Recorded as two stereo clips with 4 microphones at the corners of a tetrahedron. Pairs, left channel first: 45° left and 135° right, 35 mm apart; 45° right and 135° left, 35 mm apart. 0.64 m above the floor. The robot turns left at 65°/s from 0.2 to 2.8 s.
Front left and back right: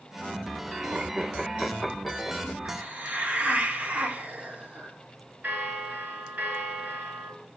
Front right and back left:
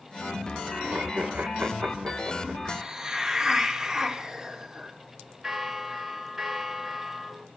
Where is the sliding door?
No sliding door in this recording.